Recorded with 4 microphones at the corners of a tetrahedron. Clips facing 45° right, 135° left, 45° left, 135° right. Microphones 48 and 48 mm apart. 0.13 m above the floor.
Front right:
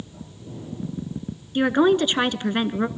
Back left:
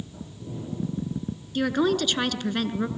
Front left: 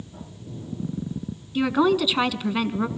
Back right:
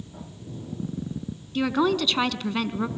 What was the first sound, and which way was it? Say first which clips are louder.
A woman speaking: front right 5 dB, front left 3 dB; 25° right.